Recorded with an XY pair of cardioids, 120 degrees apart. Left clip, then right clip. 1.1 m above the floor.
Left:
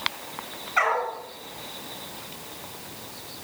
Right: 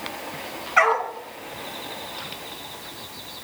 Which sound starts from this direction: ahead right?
A dog barking, at 0.8 s.